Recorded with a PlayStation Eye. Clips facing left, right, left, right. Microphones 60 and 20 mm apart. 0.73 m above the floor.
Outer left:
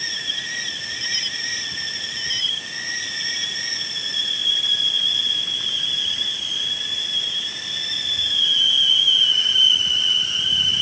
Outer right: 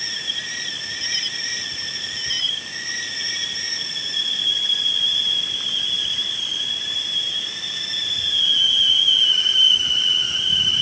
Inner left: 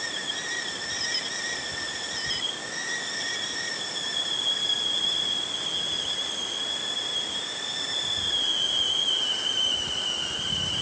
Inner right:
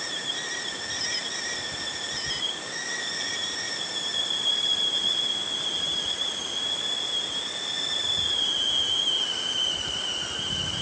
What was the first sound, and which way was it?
Only background noise.